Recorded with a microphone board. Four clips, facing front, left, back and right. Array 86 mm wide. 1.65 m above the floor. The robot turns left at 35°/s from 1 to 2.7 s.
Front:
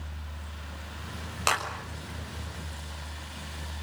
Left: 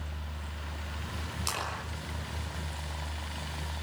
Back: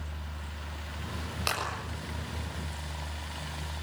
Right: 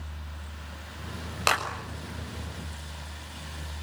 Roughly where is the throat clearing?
No throat clearing in this recording.